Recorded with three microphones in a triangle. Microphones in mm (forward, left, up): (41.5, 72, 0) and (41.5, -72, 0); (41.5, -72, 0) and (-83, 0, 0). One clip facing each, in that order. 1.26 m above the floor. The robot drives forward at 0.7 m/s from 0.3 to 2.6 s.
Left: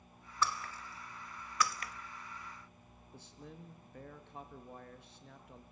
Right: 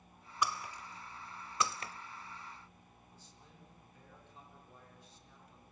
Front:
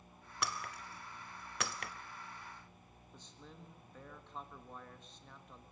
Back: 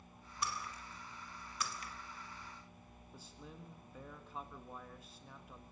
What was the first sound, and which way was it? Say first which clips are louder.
Breaking glass: even, front 1 dB; 15° right.